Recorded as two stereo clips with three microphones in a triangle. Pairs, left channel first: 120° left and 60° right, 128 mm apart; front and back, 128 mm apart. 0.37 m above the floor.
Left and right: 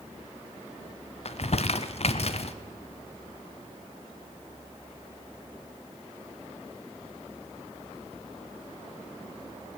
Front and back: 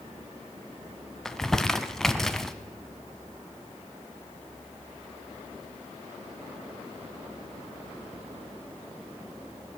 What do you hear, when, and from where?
1.2 s crumpling: 85° left, 0.7 m